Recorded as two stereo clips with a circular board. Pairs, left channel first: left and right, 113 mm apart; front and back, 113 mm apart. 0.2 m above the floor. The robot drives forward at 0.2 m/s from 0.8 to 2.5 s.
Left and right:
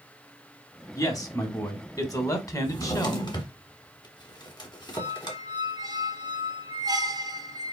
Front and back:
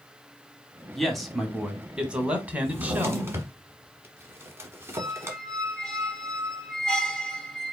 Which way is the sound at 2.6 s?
120° left.